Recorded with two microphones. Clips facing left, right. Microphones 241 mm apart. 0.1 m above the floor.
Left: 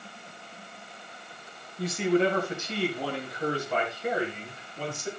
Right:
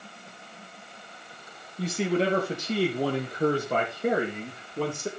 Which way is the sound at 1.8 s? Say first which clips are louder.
Left 2 dB; 30° right (ahead or behind).